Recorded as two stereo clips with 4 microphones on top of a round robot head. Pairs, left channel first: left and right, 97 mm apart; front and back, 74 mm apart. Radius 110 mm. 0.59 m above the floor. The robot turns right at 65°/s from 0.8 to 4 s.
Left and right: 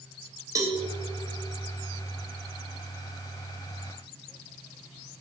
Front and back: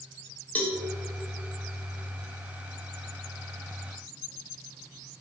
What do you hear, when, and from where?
0.6 s a cowbell: 55° right, 1.5 m